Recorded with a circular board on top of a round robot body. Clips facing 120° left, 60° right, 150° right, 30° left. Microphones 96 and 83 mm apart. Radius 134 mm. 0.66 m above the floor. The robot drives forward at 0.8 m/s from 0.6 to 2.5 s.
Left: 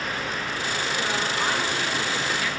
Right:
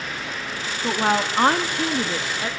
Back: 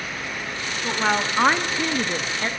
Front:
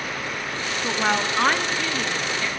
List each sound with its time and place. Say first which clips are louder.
0.8 s a woman speaking: right 9 dB, back 1 dB; 55° right, 1.8 m; by 2.5 s 110° right, 1.7 m